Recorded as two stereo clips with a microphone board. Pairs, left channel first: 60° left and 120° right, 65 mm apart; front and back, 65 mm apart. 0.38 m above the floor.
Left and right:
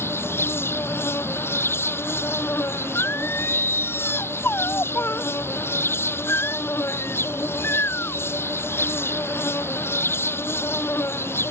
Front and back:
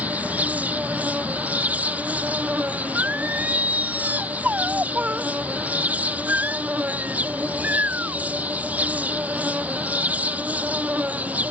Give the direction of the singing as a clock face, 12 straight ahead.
8 o'clock.